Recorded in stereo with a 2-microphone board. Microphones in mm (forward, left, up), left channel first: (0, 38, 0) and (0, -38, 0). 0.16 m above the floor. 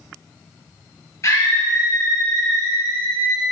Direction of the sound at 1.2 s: 40° left (ahead or behind).